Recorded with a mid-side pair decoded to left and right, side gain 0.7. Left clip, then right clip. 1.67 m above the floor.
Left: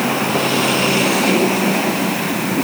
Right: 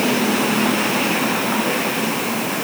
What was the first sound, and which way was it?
Only background noise.